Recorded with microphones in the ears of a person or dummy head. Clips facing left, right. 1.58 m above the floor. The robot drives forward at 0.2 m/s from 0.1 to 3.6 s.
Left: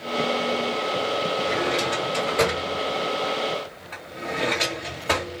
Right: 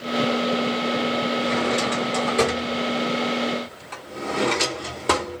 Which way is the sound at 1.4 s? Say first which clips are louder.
Right 2 dB; 50° right (ahead or behind).